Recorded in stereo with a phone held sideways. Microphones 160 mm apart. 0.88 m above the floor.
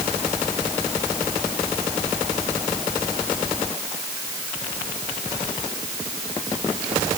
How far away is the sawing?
I don't hear sawing.